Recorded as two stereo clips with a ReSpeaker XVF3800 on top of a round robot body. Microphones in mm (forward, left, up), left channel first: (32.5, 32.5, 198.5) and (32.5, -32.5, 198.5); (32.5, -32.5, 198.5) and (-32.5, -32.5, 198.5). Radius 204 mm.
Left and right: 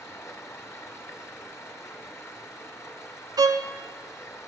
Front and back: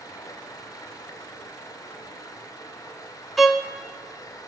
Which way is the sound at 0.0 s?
40° left.